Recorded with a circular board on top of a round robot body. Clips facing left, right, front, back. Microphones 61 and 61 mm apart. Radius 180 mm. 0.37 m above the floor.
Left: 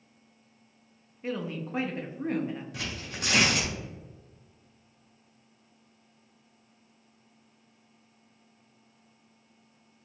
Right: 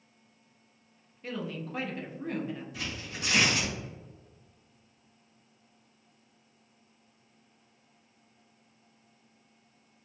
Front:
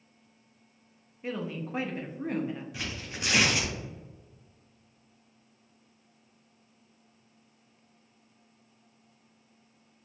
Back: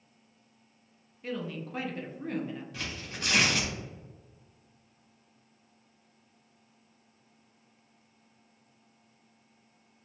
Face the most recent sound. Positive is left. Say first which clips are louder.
# left 1 dB, front 1 dB
turn(degrees=85)